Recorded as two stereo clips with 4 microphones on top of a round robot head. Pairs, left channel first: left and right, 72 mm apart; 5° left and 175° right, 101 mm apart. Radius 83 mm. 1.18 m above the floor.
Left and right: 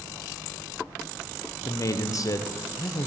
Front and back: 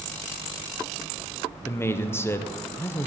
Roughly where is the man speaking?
Ahead left.